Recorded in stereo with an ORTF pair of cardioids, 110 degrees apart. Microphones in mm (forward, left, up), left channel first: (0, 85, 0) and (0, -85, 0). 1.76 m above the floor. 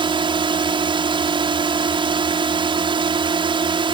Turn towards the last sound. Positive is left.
turn(degrees=-30)